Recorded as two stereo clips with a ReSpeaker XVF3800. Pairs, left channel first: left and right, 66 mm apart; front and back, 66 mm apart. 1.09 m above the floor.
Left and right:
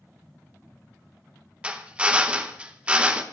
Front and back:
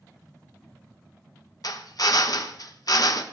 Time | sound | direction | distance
1.6 | a drill | 15° right | 1.1 m